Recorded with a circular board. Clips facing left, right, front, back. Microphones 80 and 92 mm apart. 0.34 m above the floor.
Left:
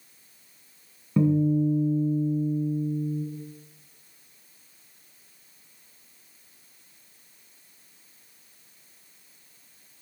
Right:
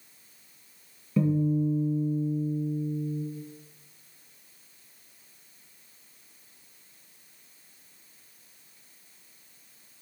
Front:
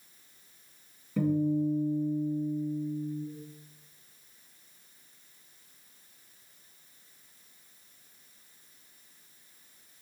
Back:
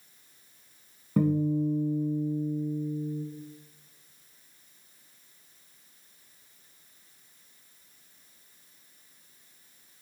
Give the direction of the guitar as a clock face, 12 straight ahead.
7 o'clock.